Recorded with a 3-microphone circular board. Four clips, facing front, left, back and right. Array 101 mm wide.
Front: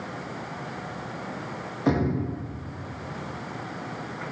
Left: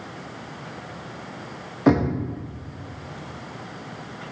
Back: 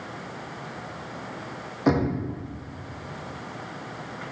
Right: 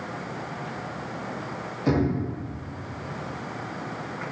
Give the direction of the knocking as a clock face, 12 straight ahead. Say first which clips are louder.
Left 5 dB, back 1 dB; 8 o'clock.